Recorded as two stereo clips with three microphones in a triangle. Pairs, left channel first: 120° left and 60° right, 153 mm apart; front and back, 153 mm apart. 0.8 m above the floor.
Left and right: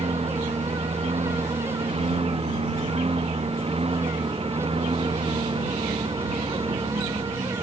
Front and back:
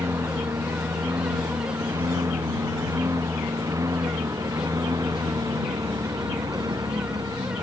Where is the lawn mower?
110° right; by 7.6 s 115° right.